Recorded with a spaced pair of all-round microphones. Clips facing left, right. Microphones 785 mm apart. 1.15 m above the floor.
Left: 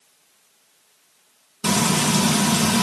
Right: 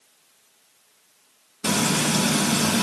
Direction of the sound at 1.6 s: 35° left (ahead or behind).